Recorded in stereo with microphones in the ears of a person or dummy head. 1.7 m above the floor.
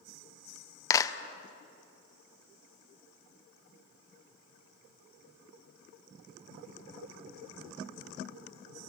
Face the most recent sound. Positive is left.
turn(degrees=20)  # may be behind; listen again after turning